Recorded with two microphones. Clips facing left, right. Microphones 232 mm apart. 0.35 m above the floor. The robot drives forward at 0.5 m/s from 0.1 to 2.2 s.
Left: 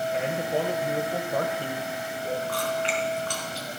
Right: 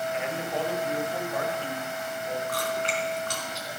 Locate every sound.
0.1 s a man speaking: 40° left (ahead or behind), 1.9 m; by 2.4 s 45° left (ahead or behind), 1.8 m
2.5 s chewing: 45° right (ahead or behind), 3 m